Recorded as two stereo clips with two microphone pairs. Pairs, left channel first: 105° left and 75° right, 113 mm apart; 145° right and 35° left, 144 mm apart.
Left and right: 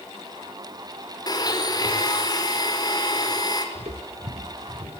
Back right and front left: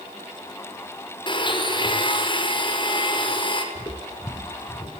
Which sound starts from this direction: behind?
A blender, at 1.3 s.